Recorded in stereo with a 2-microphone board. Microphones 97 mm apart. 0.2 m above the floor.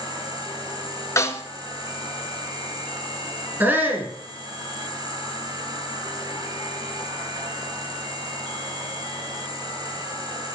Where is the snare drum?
30° left (ahead or behind), 2.5 m.